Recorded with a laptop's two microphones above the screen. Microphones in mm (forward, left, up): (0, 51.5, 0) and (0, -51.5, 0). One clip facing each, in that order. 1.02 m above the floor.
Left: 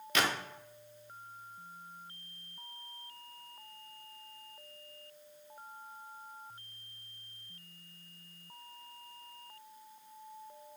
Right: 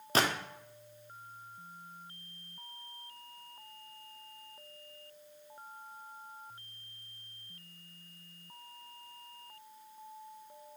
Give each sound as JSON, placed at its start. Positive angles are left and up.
{"t": 0.1, "sound": "a gunshot", "side_deg": -35, "distance_m": 0.5}